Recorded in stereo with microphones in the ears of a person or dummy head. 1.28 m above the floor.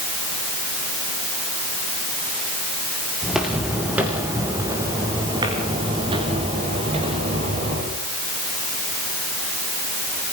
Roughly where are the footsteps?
Centre.